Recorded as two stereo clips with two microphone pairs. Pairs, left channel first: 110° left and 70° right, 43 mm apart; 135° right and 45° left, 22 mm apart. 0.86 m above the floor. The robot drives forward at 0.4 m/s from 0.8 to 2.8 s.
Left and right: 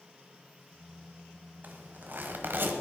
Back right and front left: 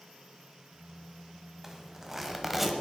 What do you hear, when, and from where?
1.6 s a zipper: 35° right, 1.7 m; by 2.7 s 45° right, 1.4 m